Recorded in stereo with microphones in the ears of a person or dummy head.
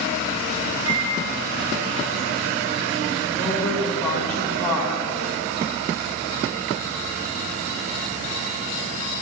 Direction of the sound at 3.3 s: 10° left (ahead or behind).